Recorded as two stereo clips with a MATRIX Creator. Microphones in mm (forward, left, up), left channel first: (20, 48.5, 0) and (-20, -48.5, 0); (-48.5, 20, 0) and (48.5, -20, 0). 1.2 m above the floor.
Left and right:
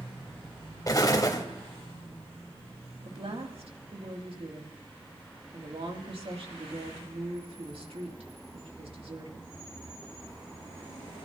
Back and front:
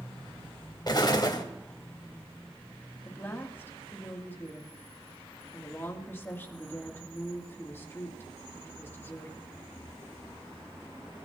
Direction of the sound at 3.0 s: 135° right.